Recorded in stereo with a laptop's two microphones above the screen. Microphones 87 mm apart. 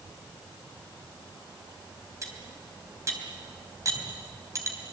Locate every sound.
2.2 s cutlery clinking: 40° right (ahead or behind), 3.5 m